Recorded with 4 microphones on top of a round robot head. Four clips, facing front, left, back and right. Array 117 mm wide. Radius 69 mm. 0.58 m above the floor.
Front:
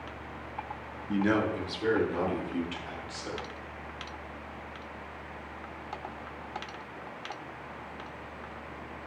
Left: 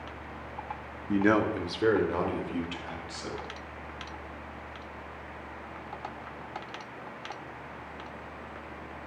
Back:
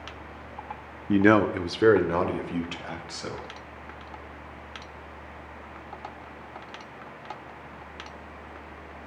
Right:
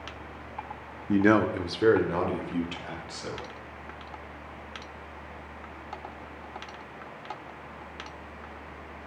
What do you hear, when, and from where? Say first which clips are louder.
1.1 s a man speaking: right 3 dB, back 8 dB; 160° right, 0.8 m; by 3.5 s straight behind, 3.5 m